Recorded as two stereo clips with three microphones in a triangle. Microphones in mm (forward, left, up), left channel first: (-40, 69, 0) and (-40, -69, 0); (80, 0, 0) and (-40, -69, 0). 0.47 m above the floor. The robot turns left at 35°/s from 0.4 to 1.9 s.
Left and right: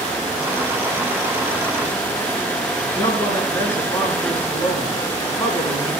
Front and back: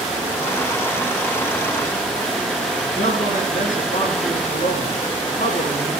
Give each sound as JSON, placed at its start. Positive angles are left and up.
{"t": 2.8, "sound": "a man speaking", "azimuth_deg": 35, "distance_m": 4.5}